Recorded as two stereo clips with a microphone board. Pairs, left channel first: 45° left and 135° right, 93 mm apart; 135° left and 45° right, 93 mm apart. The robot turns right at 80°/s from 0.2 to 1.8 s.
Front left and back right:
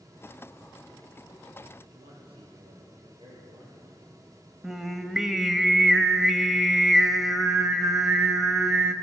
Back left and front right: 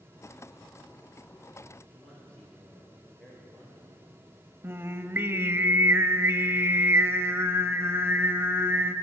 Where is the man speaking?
145° right, 7 m.